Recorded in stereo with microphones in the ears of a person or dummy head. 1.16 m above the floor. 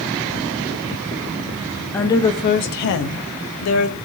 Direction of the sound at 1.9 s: 15° left (ahead or behind).